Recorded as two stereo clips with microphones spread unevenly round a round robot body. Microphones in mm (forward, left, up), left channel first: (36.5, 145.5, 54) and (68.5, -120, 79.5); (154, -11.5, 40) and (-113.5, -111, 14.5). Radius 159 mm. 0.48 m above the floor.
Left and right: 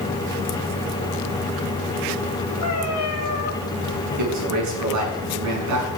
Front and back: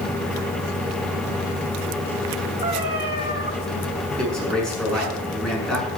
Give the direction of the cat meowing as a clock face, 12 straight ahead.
8 o'clock.